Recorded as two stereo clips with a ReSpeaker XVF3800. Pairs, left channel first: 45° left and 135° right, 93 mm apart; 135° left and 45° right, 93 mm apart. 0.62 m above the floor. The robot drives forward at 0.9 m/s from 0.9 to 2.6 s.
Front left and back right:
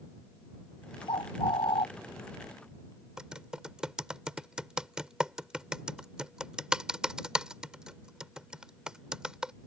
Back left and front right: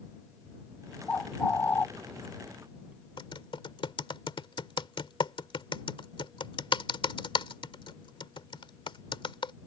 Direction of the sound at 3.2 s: 145° left.